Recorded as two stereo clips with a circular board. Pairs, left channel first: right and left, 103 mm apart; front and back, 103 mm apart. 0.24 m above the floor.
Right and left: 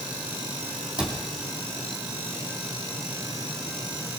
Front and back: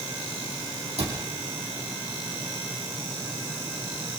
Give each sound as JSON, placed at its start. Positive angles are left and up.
{"t": 1.0, "sound": "a cupboard door", "azimuth_deg": 170, "distance_m": 5.0}